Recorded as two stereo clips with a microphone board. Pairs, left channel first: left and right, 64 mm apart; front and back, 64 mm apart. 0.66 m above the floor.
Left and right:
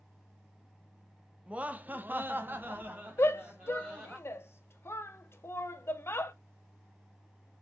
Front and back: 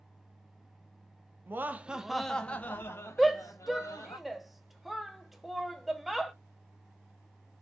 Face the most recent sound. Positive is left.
turn(degrees=90)